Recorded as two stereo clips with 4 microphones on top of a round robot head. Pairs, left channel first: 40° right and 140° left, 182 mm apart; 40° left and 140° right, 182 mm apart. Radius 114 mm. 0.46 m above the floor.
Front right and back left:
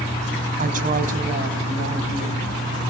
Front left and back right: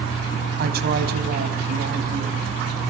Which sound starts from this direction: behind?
A woman speaking, at 0.6 s.